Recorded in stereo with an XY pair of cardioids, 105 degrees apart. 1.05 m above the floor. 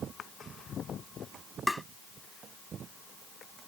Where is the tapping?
5° left.